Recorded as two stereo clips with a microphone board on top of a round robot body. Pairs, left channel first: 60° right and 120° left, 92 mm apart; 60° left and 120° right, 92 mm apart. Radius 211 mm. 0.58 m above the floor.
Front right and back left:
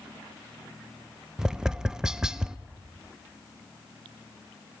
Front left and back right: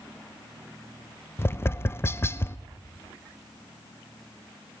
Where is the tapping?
45° left, 0.6 m.